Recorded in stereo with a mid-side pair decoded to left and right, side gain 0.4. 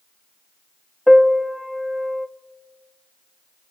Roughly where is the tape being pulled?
I don't hear tape being pulled.